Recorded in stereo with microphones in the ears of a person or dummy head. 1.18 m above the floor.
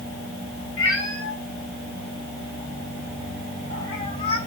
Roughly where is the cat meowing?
Left.